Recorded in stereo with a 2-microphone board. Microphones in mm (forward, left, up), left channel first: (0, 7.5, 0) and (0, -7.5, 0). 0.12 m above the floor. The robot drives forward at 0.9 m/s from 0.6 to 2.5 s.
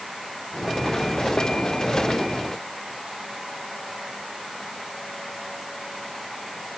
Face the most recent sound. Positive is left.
No sound to turn to.